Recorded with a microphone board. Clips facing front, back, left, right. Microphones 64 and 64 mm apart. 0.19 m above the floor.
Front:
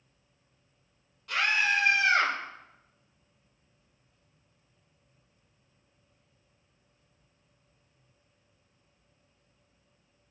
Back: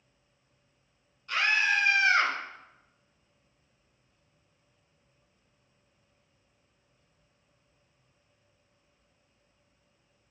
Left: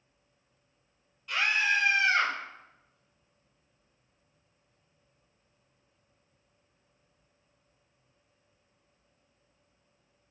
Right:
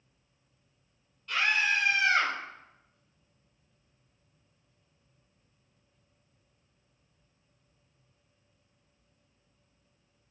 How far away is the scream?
About 5 m.